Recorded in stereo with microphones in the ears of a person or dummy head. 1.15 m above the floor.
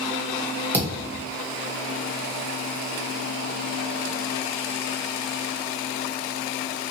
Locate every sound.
0.7 s a thud: 15° right (ahead or behind), 1.3 m